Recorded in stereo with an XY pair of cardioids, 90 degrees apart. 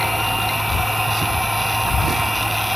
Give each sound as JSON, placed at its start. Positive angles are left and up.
{"t": 0.0, "sound": "a machine running", "azimuth_deg": 0}